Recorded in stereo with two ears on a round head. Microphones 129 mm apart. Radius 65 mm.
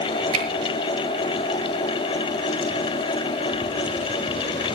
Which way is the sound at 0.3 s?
35° right (ahead or behind).